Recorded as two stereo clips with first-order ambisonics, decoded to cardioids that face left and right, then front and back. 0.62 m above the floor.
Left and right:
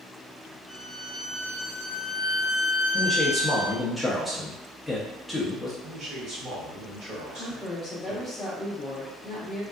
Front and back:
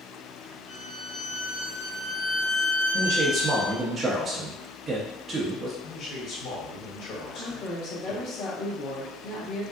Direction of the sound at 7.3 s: 20° left.